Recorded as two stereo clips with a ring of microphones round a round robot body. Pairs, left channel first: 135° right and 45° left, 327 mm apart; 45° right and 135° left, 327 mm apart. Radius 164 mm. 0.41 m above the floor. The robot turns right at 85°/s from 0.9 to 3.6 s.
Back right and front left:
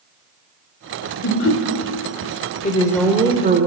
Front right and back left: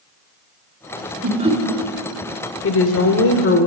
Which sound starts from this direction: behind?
Laughter, at 1.2 s.